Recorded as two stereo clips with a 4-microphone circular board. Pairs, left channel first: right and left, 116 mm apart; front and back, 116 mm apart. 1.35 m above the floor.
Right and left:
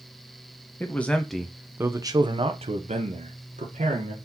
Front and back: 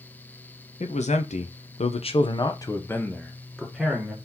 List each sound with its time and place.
0.8 s a man speaking: 20° right, 1.0 m; by 4.1 s 95° left, 1.4 m